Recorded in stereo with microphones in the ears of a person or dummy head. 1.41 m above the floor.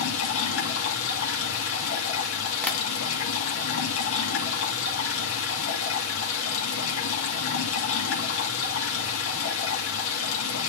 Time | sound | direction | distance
0.0 | running water | 75° left (ahead or behind) | 2 m
2.6 | tapping | 10° left (ahead or behind) | 1.3 m